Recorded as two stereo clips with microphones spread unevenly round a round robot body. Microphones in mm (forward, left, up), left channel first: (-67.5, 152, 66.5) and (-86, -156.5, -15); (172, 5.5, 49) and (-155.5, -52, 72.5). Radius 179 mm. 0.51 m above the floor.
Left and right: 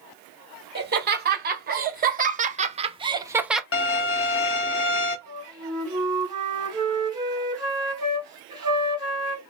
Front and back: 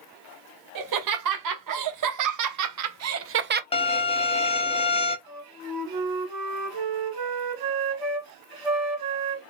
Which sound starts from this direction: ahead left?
A violin, at 3.7 s.